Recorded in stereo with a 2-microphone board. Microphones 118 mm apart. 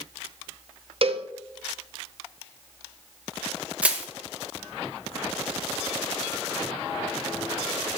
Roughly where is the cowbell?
Right.